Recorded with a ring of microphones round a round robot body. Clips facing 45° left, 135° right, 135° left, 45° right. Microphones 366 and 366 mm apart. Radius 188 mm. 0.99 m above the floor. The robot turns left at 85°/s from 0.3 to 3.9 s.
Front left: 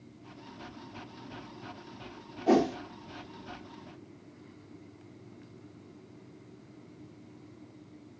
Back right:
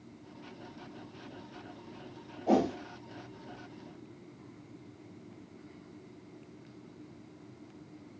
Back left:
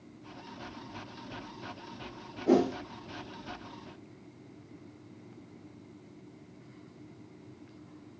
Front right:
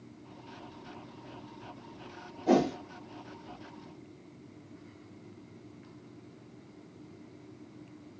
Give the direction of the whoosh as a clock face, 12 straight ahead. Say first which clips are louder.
Front left 3 dB, back left 1 dB; 11 o'clock.